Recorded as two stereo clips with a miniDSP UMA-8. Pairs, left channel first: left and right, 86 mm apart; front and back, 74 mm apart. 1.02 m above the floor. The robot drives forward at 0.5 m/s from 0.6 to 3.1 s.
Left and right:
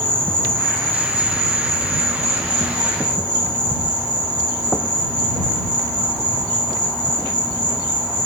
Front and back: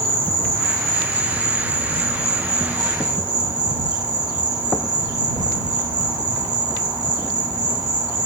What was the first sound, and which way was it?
An insect, 160° left.